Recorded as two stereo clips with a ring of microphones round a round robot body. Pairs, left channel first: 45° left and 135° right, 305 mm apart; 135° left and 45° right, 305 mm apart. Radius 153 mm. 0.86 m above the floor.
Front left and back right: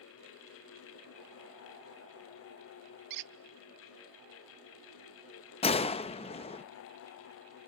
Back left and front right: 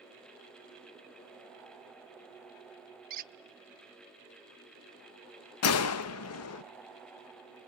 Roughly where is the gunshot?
Left.